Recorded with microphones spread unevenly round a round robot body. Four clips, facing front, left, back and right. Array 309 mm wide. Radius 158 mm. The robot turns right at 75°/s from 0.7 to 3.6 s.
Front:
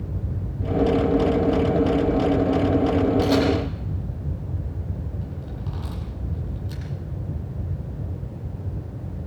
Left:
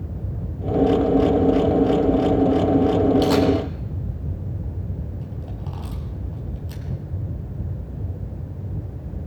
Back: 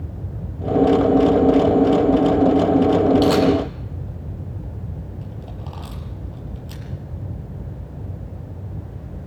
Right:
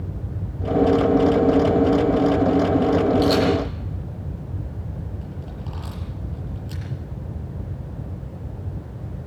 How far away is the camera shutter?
About 6.5 m.